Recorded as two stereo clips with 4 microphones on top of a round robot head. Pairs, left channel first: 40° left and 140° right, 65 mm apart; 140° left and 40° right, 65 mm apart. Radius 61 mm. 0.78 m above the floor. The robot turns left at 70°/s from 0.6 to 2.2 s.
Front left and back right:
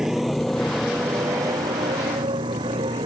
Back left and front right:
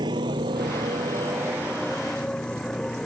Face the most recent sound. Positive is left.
turn(degrees=-140)